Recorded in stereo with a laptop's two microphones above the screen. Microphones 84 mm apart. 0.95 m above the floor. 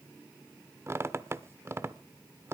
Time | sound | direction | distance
0.9 | a squeak | 30° right (ahead or behind) | 0.7 m